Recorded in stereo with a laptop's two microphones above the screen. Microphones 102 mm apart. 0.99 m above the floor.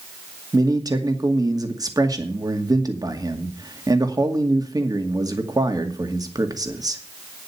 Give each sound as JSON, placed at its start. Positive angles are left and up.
{"t": 0.5, "sound": "a man speaking", "side_deg": -40, "distance_m": 2.0}